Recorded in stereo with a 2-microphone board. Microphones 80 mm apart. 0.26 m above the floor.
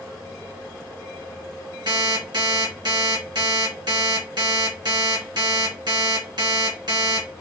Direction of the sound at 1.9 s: 65° right (ahead or behind).